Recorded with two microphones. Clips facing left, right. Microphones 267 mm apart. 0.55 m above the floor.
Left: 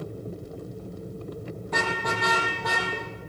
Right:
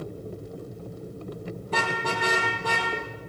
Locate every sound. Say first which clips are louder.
1.6 s a car horn: even; 35° right (ahead or behind), 6.5 m; by 2.9 s 30° right (ahead or behind), 7 m